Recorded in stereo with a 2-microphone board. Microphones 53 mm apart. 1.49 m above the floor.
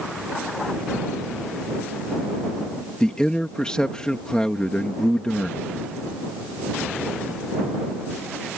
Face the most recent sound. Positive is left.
turn(degrees=15)  # may be behind; listen again after turning